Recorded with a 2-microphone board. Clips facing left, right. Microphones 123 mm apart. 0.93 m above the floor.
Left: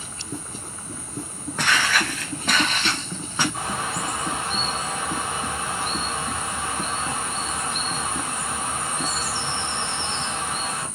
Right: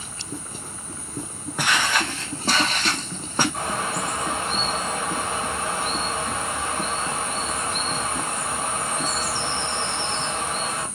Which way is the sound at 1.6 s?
10° right (ahead or behind).